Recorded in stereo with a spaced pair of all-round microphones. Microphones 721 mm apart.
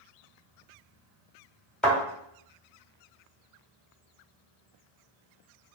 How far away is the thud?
About 1.8 m.